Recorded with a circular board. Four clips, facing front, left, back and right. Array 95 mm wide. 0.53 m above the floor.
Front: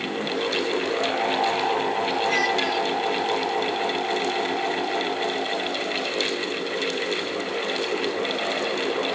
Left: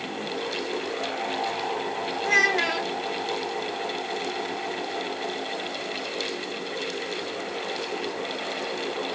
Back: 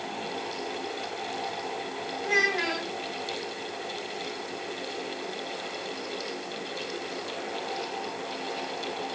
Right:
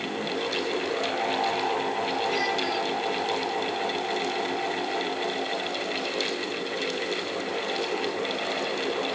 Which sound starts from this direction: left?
A child speaking, at 2.2 s.